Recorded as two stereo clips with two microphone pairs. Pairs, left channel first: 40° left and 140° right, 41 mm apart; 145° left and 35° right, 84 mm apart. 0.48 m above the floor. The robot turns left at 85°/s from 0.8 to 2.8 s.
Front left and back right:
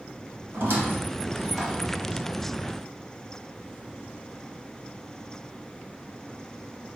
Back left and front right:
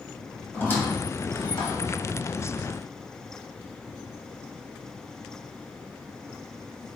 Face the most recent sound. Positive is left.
turn(degrees=35)